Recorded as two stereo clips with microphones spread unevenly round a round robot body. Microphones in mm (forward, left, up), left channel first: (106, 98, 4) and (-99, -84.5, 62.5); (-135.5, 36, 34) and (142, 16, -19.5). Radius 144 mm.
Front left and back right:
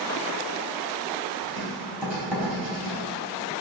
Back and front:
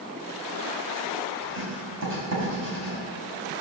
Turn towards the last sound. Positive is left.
turn(degrees=-55)